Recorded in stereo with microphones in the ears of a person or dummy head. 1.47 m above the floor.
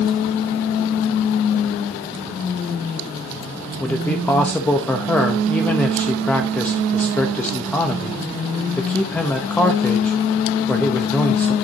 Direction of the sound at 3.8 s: 15° left (ahead or behind).